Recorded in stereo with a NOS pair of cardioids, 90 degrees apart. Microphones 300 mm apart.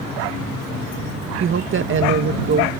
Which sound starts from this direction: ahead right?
A woman speaking, at 1.4 s.